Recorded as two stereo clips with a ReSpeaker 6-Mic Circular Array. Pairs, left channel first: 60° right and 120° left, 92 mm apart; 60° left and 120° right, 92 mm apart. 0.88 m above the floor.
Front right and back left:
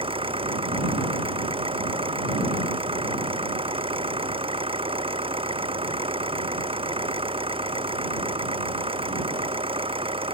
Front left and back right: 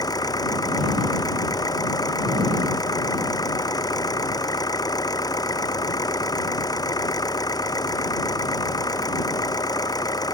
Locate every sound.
0.0 s an engine running: 110° left